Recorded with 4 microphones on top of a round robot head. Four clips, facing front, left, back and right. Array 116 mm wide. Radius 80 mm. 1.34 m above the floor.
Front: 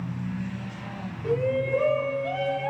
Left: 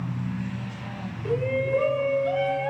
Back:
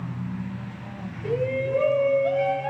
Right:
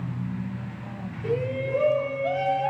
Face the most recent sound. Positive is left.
turn(degrees=-95)